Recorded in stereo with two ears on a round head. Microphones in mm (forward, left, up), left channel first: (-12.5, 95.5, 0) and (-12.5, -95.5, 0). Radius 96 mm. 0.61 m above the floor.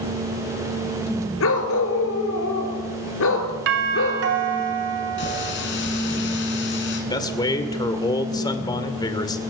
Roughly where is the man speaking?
Centre.